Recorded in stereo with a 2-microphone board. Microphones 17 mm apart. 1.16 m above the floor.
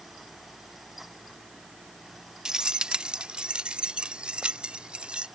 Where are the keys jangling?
45° right (ahead or behind); by 5.3 s 75° right (ahead or behind).